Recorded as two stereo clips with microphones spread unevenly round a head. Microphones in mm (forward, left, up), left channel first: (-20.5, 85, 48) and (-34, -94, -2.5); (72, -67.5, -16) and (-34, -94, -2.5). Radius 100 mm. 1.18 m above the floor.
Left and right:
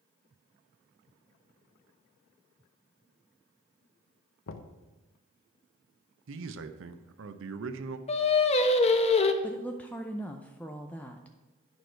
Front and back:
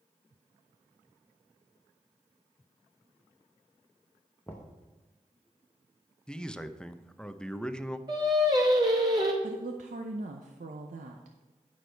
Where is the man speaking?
70° right, 0.7 m.